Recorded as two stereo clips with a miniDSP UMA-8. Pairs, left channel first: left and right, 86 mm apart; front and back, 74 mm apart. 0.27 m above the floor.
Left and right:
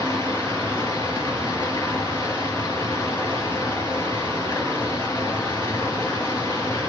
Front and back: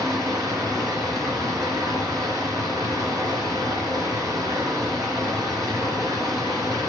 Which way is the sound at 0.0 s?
155° left.